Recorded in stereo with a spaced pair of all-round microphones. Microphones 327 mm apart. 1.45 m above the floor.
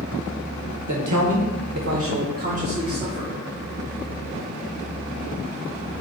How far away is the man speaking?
About 1.2 m.